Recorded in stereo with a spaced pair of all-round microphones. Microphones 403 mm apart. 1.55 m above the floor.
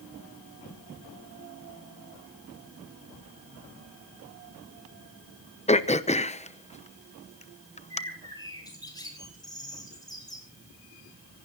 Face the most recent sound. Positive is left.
turn(degrees=10)  # may be behind; listen again after turning